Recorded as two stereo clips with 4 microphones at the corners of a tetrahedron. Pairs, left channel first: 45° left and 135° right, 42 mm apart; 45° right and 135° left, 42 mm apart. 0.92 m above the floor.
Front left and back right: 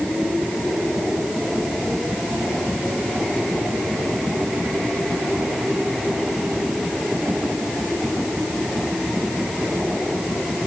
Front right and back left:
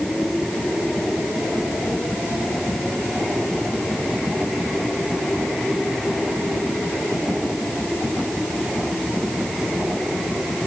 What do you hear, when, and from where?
Only background noise.